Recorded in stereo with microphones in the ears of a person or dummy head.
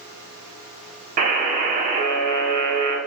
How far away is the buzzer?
About 0.7 m.